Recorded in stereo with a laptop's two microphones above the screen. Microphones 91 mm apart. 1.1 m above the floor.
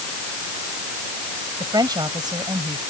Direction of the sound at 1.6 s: 50° right (ahead or behind).